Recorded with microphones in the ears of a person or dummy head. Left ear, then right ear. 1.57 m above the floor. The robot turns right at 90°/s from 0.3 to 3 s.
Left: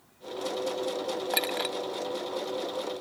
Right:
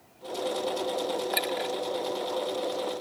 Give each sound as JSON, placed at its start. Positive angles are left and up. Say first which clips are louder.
{"t": 1.3, "sound": "a clink", "louder": "left 3 dB", "side_deg": 0}